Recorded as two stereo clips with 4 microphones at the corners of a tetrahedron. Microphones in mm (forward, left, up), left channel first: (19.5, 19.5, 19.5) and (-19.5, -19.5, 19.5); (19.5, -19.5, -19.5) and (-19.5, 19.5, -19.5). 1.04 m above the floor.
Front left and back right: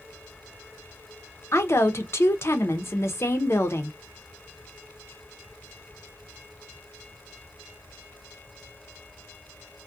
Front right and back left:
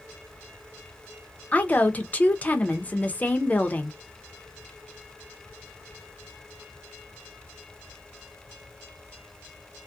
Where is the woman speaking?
15° left, 0.5 m.